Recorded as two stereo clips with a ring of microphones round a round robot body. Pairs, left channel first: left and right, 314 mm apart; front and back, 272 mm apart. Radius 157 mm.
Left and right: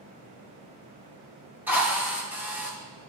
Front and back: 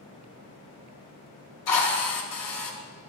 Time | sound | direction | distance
1.7 | a drill | 5° right | 2.5 m